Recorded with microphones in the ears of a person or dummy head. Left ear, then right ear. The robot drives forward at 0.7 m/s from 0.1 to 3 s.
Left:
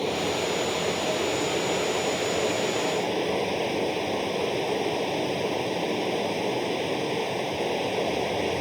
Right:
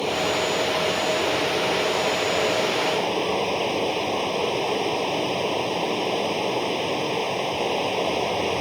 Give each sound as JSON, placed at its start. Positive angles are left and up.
{"t": 0.0, "sound": "running water", "side_deg": -20}